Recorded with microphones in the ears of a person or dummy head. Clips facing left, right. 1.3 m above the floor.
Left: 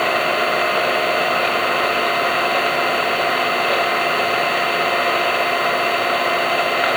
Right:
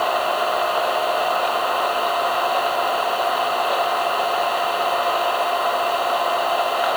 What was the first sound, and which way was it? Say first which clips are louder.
An engine running: left 2 dB; 35° left (ahead or behind).